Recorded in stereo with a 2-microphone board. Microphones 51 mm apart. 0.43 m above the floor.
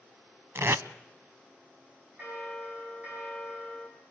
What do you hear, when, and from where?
0.6 s tape being pulled: 60° right (ahead or behind), 0.5 m
2.2 s a bell: 30° right (ahead or behind), 5 m